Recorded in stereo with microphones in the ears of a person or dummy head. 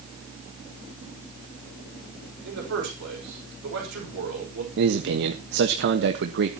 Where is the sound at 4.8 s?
65° right (ahead or behind), 1.4 m.